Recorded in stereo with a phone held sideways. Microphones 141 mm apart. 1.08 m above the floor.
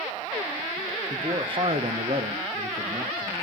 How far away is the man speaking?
About 1.1 m.